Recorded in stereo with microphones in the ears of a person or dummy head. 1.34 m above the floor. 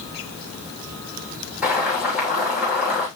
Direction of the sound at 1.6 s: 5° right (ahead or behind).